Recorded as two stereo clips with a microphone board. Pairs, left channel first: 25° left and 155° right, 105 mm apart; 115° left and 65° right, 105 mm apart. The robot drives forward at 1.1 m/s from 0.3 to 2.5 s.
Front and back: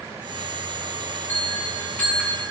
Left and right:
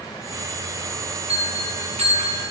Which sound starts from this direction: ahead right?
A bell, at 1.3 s.